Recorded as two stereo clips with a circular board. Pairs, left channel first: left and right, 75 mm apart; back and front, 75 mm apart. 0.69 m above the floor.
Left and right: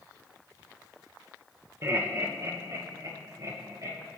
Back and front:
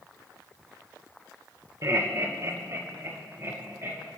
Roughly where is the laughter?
Ahead right.